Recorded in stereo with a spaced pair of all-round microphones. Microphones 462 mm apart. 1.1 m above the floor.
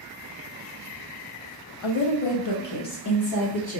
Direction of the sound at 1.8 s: 80° left.